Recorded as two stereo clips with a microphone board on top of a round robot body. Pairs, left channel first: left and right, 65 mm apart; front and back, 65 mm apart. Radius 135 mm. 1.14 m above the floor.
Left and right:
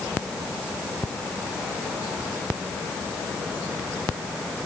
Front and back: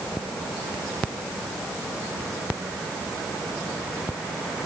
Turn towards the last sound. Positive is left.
No sound to turn to.